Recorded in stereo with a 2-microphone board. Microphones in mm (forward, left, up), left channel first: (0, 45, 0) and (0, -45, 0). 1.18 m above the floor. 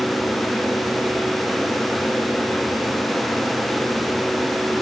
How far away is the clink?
No clink in this recording.